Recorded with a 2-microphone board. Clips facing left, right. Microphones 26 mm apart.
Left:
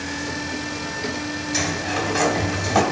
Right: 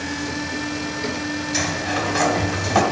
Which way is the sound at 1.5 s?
10° right (ahead or behind).